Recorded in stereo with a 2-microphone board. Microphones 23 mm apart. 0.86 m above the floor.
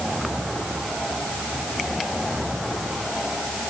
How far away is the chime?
I don't hear a chime.